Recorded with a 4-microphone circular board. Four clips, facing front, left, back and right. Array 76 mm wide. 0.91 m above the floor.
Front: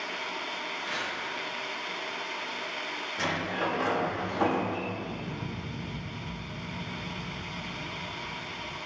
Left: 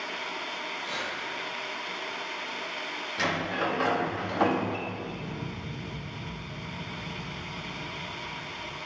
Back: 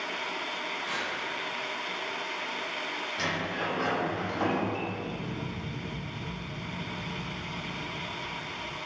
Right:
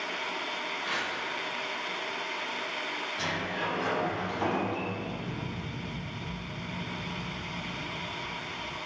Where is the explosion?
130° right, 2 m.